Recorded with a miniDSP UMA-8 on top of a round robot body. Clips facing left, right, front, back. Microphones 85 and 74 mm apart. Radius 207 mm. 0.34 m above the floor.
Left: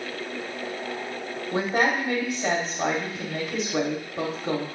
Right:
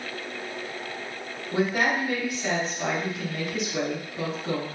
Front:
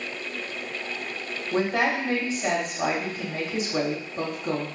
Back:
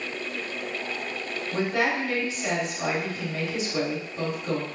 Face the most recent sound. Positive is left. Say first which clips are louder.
# left 1 dB, front 2 dB
turn(degrees=40)